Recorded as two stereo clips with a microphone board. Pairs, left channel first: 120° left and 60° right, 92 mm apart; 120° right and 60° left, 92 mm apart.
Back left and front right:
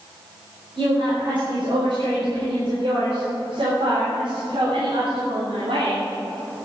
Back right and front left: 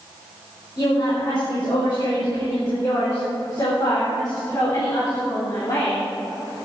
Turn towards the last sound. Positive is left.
turn(degrees=-65)